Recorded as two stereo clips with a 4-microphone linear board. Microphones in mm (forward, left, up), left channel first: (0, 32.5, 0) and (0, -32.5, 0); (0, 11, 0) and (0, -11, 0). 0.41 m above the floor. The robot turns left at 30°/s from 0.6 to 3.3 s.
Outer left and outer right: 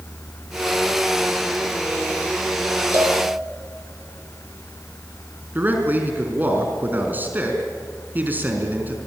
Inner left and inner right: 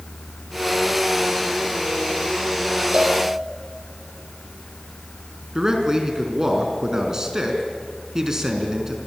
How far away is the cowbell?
About 6 m.